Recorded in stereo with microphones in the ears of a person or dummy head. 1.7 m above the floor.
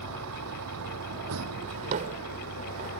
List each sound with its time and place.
0.0 s a vehicle: 85° right
1.7 s a drawer: 45° right (ahead or behind)